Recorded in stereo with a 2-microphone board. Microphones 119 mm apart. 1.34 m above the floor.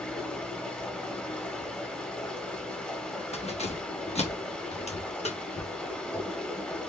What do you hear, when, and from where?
0.0 s running water: 10° left (ahead or behind), 1.2 m
3.3 s keys jangling: 65° left (ahead or behind), 1.2 m